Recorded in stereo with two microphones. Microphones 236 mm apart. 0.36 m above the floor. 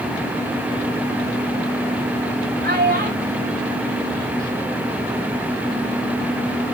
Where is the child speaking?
45° right (ahead or behind), 2.0 m; by 5.0 s 5° left (ahead or behind), 0.9 m.